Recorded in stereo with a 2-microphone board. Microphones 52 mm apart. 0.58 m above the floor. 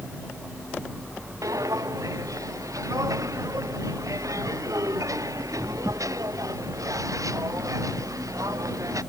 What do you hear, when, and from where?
1.4 s footsteps: 85° right